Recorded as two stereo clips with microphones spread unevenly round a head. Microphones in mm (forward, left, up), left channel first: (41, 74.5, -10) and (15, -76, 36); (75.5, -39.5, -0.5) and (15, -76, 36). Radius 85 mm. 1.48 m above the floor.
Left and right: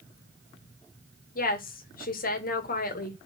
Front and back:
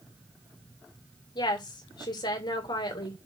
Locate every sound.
1.4 s a woman speaking: 55° left, 2.5 m